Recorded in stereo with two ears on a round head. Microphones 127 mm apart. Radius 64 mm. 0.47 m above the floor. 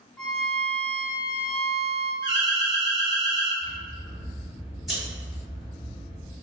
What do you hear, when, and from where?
0.2 s a violin: 5° left (ahead or behind), 0.8 m
2.2 s an alarm: 30° right (ahead or behind), 1.7 m
3.6 s scissors: centre (ahead or behind), 0.9 m